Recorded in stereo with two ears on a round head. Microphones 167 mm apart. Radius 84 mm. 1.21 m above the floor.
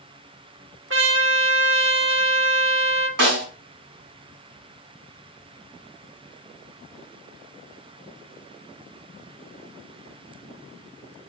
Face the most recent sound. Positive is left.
turn(degrees=-65)  # may be behind; listen again after turning